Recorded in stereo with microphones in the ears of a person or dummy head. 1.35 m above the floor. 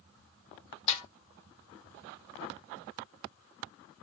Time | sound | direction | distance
0.9 | a snare drum | 40° left (ahead or behind) | 1.2 m